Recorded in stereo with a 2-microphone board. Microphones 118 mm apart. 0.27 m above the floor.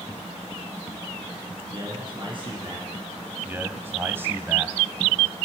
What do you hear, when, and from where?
1.7 s a man speaking: 45° right (ahead or behind), 3 m
3.5 s a man speaking: 20° right (ahead or behind), 1.3 m